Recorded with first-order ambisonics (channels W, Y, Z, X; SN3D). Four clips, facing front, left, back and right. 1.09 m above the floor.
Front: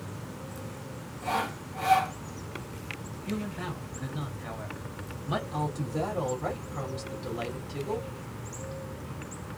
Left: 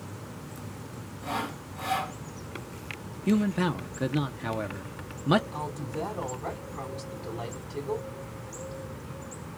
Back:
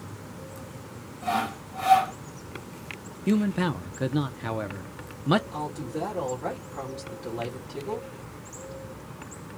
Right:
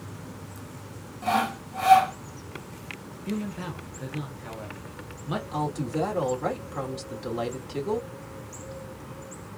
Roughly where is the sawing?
Right.